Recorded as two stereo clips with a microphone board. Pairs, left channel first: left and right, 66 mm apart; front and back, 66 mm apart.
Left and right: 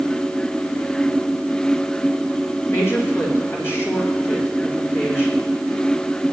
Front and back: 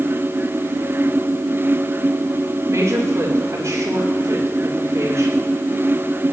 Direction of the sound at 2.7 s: 140° left.